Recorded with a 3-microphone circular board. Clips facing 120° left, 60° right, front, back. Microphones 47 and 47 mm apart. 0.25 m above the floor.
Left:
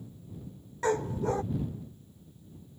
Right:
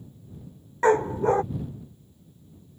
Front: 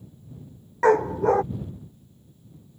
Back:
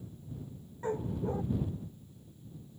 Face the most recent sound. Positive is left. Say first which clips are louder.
# right 8 dB, front 16 dB
turn(degrees=-5)